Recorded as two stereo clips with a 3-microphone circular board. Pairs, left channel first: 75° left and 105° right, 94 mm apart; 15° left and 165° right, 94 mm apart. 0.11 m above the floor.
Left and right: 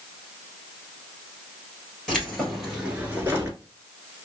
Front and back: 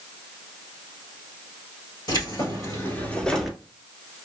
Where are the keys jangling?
10° right, 1.9 m; by 3.6 s 85° right, 1.2 m.